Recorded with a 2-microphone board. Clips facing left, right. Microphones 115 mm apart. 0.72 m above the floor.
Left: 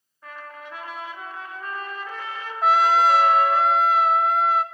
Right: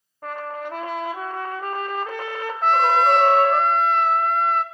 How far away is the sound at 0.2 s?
About 1.1 m.